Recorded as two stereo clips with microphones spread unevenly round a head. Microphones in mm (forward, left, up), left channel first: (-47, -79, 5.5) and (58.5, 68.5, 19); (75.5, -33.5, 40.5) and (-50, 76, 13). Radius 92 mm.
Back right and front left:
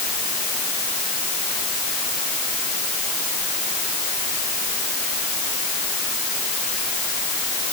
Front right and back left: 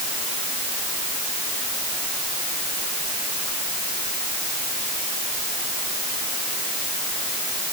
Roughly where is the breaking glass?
I don't hear breaking glass.